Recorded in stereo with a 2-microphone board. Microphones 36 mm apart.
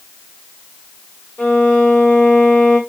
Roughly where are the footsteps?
No footsteps in this recording.